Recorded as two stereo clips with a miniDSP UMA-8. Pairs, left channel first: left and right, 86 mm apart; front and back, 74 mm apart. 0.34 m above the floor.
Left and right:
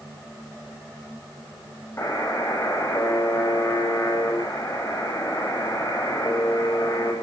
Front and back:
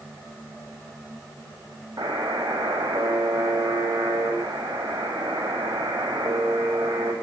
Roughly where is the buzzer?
Behind left.